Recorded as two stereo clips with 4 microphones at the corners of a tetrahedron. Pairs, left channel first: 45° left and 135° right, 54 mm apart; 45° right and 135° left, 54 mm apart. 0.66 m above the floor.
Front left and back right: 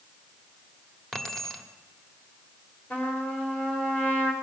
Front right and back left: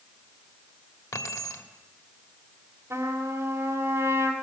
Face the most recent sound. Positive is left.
turn(degrees=105)